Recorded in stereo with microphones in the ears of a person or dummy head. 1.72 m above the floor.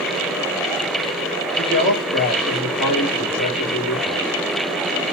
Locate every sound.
1.6 s a man speaking: 80° left, 2.5 m